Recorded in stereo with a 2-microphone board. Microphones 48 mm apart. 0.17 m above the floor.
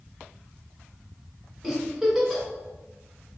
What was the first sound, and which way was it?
A giggle, 5° right (ahead or behind).